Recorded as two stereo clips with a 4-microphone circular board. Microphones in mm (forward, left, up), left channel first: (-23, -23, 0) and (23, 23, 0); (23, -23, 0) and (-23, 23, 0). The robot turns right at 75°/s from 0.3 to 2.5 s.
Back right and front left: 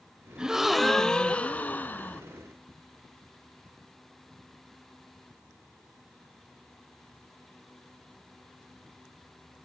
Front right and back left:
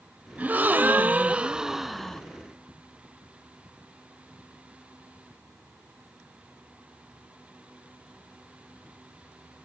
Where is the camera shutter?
I don't hear a camera shutter.